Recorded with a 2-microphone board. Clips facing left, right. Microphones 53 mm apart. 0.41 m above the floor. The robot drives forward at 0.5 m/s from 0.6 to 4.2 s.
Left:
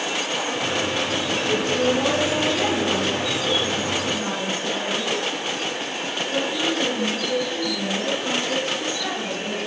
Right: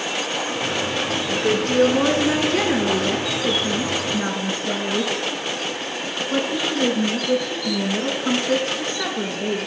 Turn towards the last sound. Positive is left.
turn(degrees=-40)  # may be behind; listen again after turning